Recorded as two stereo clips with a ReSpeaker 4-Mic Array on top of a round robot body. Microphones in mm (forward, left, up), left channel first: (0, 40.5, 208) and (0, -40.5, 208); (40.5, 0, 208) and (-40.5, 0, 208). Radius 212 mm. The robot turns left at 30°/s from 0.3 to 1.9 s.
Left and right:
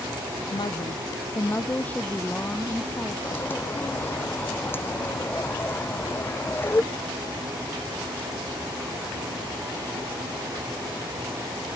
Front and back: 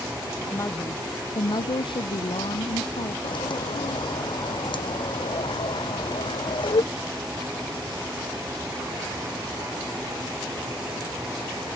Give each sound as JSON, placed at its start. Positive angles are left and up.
{"t": 0.5, "sound": "a woman speaking", "azimuth_deg": 60}
{"t": 3.2, "sound": "a bird", "azimuth_deg": 25}